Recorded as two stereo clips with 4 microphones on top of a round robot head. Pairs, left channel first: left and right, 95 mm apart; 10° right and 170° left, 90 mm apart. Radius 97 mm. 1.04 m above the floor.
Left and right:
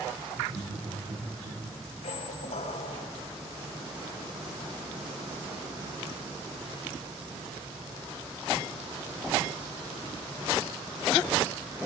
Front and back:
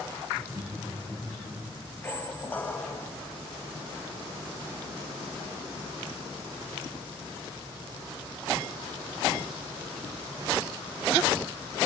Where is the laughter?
95° right, 3 m.